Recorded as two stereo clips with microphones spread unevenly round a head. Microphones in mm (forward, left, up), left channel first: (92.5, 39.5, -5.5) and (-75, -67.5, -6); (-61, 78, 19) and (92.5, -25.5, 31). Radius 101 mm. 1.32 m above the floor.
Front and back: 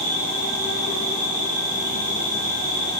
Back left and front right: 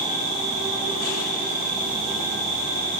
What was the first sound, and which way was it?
An insect, 140° right.